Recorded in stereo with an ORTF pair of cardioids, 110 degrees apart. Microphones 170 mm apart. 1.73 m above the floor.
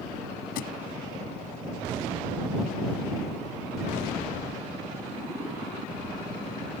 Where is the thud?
70° left.